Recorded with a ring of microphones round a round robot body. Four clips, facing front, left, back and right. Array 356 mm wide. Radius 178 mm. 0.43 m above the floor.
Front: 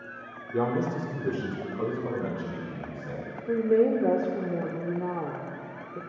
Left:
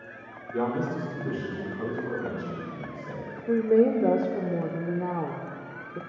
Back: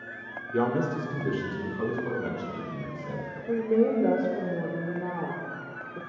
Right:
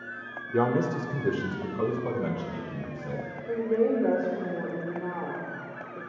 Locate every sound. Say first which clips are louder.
0.5 s a man speaking: right 3 dB, back 1 dB; 100° right, 1.3 m; by 3.3 s 70° right, 3.5 m
3.5 s a woman speaking: left 4 dB, front 2 dB; 70° left, 0.9 m